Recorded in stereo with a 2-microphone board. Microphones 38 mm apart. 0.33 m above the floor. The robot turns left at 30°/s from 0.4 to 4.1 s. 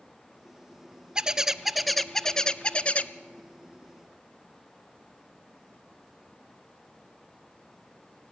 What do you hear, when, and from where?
1.1 s a bird: 160° right, 0.5 m; by 3.1 s 140° left, 0.5 m